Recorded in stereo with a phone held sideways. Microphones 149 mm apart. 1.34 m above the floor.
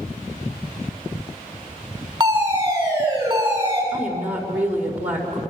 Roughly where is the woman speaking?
Centre.